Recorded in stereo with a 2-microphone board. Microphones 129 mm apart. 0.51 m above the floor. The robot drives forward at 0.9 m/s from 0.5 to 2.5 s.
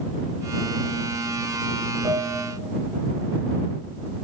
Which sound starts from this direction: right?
A piano, at 2.0 s.